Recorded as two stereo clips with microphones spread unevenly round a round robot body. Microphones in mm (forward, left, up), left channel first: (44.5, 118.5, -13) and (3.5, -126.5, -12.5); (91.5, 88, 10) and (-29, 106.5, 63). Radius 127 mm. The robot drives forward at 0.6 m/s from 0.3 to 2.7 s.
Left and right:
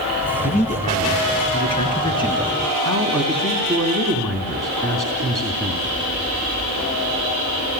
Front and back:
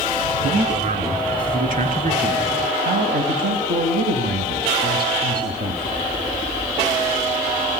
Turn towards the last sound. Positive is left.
turn(degrees=170)